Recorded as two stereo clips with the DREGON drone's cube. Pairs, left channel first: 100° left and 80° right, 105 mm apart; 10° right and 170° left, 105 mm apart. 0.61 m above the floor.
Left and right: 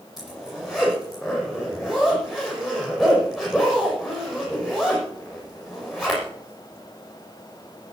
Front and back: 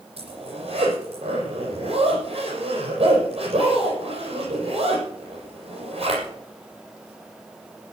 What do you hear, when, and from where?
0.2 s a zipper: 165° right, 7.5 m